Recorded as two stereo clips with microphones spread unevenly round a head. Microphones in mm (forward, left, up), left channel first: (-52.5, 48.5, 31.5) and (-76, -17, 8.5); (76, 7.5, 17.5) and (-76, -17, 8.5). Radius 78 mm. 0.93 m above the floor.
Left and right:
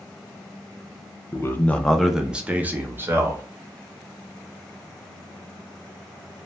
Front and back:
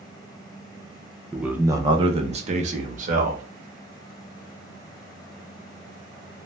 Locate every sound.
1.3 s a man speaking: 110° left, 0.5 m; by 3.4 s 145° right, 1.1 m